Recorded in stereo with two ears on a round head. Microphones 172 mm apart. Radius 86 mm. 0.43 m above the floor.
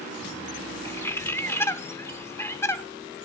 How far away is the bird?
About 0.6 m.